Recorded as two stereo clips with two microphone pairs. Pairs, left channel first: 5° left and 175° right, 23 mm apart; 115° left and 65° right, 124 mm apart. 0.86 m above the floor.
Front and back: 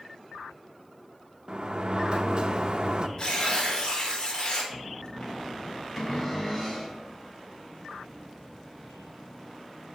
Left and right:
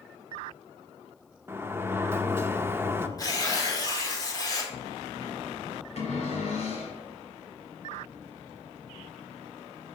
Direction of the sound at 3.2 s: 60° left.